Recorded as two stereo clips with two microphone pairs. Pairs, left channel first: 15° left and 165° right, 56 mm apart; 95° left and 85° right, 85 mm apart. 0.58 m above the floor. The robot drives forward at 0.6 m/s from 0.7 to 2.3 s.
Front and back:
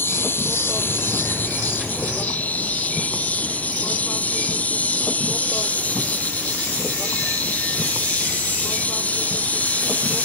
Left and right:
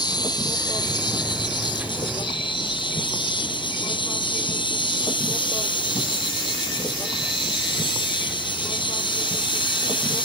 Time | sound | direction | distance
0.0 | an insect | 60° left | ?